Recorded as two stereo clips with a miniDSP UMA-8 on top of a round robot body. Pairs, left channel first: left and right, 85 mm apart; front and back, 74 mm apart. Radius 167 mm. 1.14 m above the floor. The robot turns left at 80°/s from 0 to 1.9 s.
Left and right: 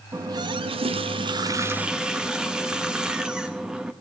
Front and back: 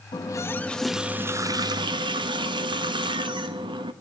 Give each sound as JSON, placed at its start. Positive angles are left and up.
{"t": 0.1, "sound": "a running tap", "azimuth_deg": -30, "distance_m": 1.0}